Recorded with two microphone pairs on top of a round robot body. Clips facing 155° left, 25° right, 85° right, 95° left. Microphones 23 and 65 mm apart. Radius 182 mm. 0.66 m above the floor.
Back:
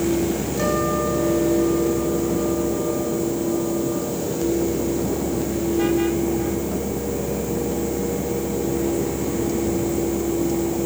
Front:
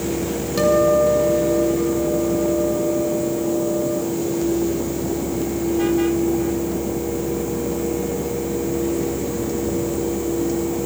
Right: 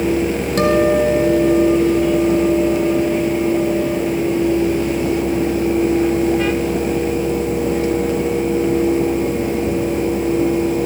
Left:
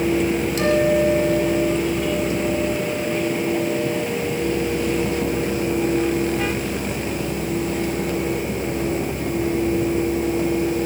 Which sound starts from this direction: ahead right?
A guitar, at 0.6 s.